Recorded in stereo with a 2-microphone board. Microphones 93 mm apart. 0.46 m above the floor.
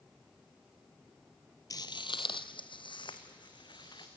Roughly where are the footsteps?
Left.